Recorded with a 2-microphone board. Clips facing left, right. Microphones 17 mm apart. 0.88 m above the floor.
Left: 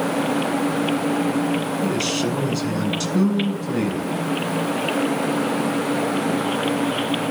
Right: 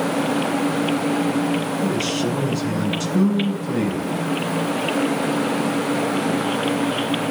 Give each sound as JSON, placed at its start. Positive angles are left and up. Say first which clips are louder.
{"t": 1.8, "sound": "a man speaking", "louder": "even", "side_deg": 35, "distance_m": 8.5}